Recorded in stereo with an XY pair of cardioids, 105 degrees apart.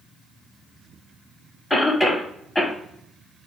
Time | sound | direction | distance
1.7 | a cough | 25° left | 1.0 m